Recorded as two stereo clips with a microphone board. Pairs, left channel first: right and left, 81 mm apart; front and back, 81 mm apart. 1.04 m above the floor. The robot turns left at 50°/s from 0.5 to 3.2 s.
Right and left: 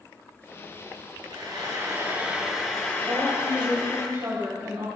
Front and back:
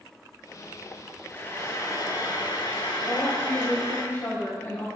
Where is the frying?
65° left, 5 m; by 4.0 s 30° right, 5 m.